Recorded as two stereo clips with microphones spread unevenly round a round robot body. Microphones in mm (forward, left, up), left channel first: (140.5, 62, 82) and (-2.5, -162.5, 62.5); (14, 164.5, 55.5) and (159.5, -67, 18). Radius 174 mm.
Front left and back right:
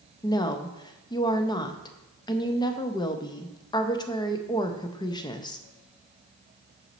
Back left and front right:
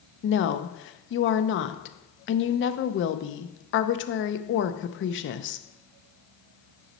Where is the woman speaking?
130° left, 0.6 m.